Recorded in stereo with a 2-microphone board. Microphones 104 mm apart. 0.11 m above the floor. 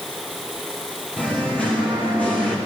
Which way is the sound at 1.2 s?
15° left (ahead or behind).